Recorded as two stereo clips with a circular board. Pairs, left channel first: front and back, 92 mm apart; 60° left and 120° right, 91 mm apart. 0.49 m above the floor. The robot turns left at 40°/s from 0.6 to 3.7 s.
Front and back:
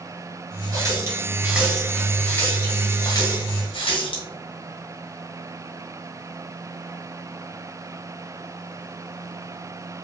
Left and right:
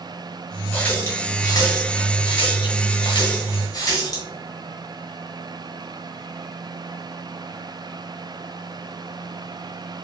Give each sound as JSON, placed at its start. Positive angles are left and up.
{"t": 0.7, "sound": "a running tap", "azimuth_deg": 135, "distance_m": 1.4}